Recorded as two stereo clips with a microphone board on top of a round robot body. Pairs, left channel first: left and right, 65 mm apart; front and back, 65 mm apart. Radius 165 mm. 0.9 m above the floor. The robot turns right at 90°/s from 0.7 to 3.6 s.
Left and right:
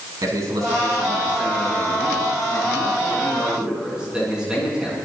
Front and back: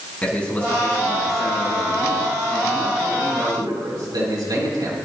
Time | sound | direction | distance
0.2 | a man speaking | 70° right | 9 m